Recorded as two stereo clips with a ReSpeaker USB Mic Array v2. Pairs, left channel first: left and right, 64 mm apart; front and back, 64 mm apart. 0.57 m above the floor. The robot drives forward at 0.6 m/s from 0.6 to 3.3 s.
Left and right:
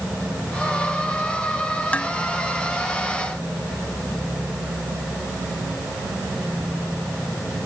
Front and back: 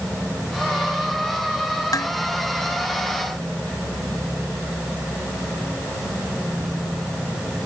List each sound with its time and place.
1.9 s dishes clattering: 20° left